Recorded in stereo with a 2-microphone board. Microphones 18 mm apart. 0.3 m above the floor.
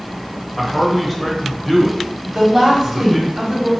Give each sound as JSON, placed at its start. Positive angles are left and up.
{"t": 0.6, "sound": "a man speaking", "side_deg": 5, "distance_m": 1.0}
{"t": 2.3, "sound": "a woman speaking", "side_deg": -30, "distance_m": 1.8}